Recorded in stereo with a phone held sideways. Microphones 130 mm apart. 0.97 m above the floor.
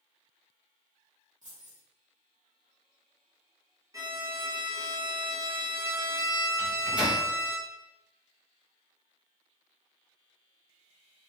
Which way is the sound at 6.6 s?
10° right (ahead or behind).